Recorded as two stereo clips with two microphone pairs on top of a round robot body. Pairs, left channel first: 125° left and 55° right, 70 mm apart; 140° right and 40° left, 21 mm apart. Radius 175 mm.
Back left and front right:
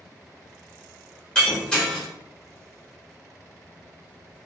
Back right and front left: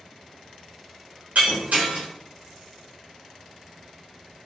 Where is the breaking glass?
45° left, 0.8 m.